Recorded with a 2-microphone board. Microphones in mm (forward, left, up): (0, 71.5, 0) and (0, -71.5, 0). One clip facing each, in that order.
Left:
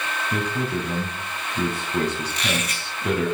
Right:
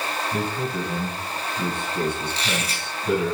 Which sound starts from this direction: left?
A man speaking, at 0.3 s.